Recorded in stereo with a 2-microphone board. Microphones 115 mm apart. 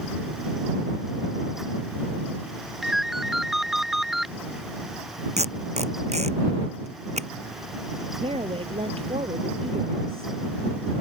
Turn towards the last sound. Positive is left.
turn(degrees=-55)  # may be behind; listen again after turning